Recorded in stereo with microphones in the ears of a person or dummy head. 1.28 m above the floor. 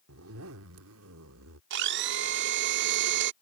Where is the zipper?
75° right (ahead or behind).